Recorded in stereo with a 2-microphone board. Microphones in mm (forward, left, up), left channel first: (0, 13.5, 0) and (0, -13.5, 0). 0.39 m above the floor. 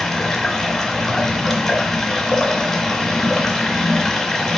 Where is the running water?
20° left (ahead or behind), 1.0 m.